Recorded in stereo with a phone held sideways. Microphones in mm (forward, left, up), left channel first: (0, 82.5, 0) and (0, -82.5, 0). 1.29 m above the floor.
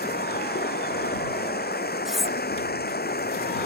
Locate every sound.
0.0 s running water: 75° left (ahead or behind)
2.0 s cutlery clinking: centre (ahead or behind)